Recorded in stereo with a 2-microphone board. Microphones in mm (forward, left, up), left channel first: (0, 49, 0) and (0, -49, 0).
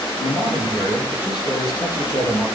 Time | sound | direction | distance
0.2 | a man speaking | 45° left (ahead or behind) | 7 m